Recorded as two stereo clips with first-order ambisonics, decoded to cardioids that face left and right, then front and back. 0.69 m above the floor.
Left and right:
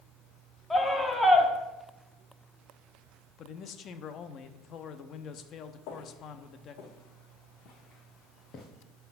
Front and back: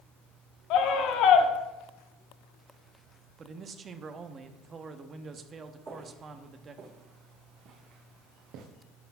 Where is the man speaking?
125° left, 0.7 m.